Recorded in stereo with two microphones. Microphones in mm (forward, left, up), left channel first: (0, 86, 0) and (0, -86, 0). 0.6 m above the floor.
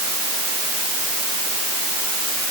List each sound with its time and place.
Only background noise.